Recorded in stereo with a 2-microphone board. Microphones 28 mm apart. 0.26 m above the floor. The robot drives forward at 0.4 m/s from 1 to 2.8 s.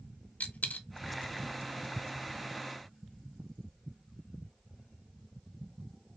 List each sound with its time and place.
0.4 s a dropped coin: 75° left (ahead or behind), 0.5 m